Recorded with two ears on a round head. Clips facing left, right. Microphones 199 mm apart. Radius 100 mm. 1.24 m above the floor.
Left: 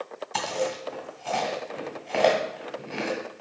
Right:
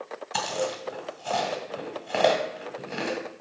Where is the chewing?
20° right (ahead or behind), 1.8 m.